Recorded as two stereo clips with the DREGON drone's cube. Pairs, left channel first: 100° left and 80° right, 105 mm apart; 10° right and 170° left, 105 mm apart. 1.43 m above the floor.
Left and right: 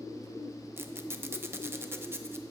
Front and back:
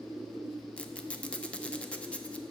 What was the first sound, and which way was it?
A squeak, 70° right.